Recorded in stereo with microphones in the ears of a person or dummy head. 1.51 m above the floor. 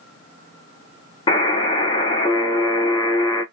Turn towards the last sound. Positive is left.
turn(degrees=30)  # may be behind; listen again after turning